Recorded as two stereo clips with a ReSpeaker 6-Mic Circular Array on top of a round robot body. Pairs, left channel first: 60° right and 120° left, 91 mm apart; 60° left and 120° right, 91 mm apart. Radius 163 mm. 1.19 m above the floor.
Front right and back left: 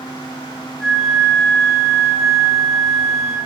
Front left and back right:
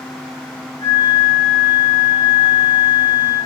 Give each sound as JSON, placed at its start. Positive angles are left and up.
{"t": 0.8, "sound": "a flute", "azimuth_deg": 25, "distance_m": 4.5}